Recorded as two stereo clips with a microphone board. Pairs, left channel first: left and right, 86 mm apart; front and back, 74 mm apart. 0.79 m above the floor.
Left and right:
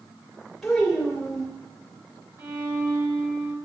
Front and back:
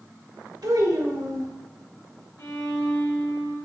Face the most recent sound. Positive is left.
turn(degrees=-35)